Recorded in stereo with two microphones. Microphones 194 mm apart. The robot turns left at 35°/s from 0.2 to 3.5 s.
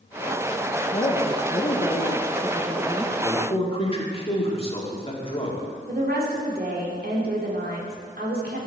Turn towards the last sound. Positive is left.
turn(degrees=-55)  # may be behind; listen again after turning